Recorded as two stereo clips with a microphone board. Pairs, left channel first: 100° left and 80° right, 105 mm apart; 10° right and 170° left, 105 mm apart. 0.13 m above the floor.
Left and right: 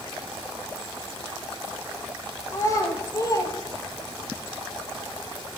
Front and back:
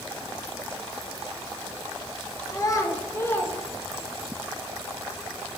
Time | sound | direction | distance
2.5 | a child speaking | 40° left | 1.5 m